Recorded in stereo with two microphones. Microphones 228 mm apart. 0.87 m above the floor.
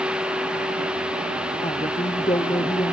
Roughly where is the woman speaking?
Left.